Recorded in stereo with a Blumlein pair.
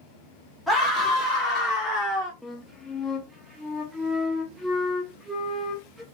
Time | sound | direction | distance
0.7 | a scream | straight ahead | 2.5 m
2.4 | a flute | straight ahead | 1.1 m